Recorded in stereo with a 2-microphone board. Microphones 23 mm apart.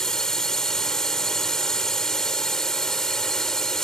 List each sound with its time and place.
0.0 s a drone: 25° left (ahead or behind)